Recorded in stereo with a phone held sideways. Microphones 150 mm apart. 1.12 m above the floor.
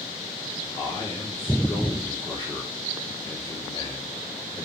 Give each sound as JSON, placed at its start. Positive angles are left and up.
{"t": 0.8, "sound": "a man speaking", "side_deg": 35, "distance_m": 3.0}